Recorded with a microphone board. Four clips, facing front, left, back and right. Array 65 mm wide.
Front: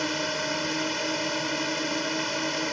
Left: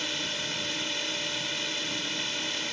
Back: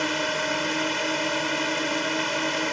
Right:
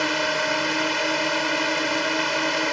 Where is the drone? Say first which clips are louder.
Right 12 dB, back 3 dB; 100° right.